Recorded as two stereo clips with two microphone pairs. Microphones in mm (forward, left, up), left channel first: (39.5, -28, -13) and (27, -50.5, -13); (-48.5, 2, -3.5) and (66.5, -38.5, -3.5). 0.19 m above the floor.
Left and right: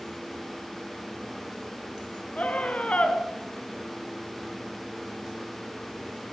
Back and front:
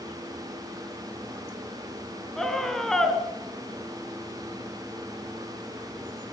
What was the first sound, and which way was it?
A scream, 75° left.